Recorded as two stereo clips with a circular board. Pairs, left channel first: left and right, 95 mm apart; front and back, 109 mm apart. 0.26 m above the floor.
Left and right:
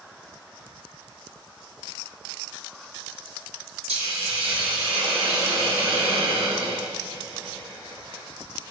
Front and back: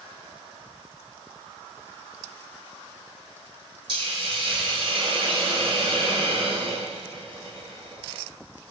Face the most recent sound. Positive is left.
turn(degrees=-150)